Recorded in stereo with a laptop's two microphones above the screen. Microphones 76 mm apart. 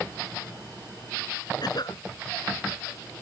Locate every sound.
1.6 s a cough: 60° left (ahead or behind)